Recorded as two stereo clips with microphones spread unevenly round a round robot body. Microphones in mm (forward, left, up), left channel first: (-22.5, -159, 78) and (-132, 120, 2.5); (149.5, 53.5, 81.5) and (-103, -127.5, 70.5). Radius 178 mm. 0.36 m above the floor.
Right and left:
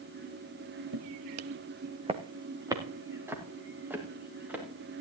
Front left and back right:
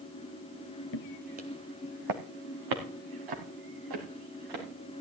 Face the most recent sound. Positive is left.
turn(degrees=-165)